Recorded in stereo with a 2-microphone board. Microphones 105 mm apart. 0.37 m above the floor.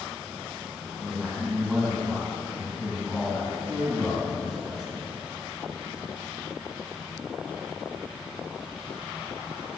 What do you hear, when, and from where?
1.0 s a man speaking: 10° left (ahead or behind), 4 m